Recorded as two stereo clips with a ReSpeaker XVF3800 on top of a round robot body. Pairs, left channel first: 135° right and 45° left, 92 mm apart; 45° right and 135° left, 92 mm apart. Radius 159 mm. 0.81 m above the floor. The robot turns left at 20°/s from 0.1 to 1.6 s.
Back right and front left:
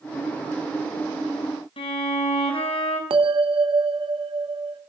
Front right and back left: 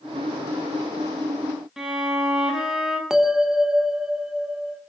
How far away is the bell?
About 2 m.